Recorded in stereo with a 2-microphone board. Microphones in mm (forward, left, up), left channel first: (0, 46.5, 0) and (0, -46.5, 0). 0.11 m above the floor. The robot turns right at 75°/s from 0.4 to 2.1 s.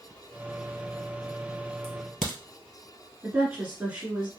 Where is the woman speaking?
15° right (ahead or behind), 1.5 m.